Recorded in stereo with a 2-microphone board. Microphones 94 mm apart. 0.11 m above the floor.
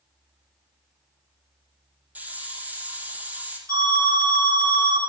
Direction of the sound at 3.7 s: 40° right (ahead or behind).